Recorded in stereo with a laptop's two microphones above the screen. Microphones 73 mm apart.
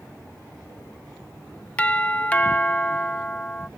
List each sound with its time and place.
1.8 s a doorbell: 20° left (ahead or behind)